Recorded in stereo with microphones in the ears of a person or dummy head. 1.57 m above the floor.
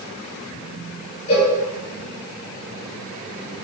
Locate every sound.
1.3 s a cowbell: 45° left (ahead or behind), 1.8 m